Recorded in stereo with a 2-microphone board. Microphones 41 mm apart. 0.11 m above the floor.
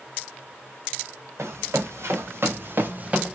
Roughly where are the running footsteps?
Right.